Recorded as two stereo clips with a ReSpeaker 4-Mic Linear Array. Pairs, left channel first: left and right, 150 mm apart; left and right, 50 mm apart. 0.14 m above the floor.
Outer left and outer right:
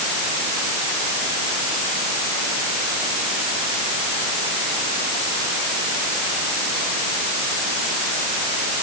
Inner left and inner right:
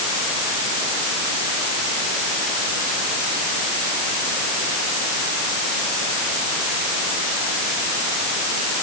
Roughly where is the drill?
No drill in this recording.